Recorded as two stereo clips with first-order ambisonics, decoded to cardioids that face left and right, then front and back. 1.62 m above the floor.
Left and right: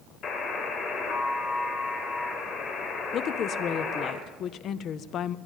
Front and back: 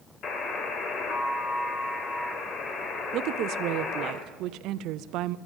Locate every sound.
0.2 s a buzzer: 50° left, 1.8 m
3.1 s a woman speaking: 145° left, 0.5 m